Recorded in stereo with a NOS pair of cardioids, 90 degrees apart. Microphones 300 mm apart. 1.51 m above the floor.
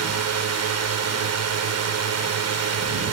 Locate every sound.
0.0 s a drone: 60° right